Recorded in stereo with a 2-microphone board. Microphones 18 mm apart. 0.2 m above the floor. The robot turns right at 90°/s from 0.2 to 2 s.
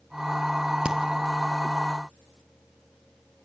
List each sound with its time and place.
0.8 s a crack: 75° right (ahead or behind), 1.7 m; by 1.0 s 70° right (ahead or behind), 1.7 m